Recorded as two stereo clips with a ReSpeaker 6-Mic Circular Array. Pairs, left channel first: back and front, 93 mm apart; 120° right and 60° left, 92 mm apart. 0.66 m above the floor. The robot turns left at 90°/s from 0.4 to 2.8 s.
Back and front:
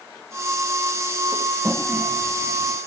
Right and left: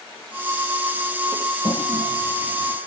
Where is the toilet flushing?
75° right; by 2.8 s straight behind.